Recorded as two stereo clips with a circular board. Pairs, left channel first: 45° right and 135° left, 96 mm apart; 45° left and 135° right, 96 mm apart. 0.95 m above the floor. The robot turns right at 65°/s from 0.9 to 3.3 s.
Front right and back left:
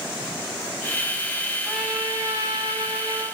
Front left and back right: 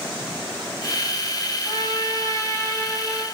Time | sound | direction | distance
1.7 | a trumpet | 45° left | 1.1 m